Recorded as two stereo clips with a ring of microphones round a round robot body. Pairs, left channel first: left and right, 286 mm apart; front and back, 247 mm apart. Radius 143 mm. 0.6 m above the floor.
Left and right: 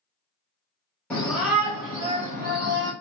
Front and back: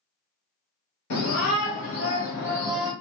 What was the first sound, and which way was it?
A shout, 5° left.